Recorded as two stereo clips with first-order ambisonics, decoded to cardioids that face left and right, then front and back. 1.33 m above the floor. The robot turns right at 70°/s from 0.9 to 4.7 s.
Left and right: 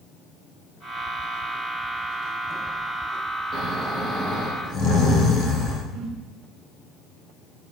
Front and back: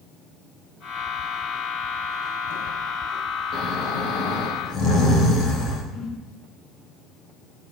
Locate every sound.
3.5 s snoring: 40° right, 4 m; by 5.8 s 40° left, 4 m
5.9 s a whoosh: 35° right, 5 m